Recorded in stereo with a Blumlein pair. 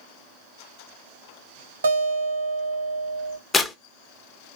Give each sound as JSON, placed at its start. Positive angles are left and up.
{"t": 1.8, "sound": "a guitar", "azimuth_deg": -65, "distance_m": 1.7}
{"t": 3.5, "sound": "tearing paper", "azimuth_deg": 15, "distance_m": 1.1}